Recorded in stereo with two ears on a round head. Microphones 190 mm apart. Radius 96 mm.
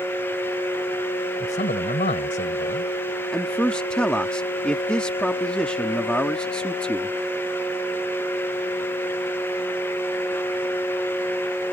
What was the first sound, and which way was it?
A man speaking, 35° left (ahead or behind).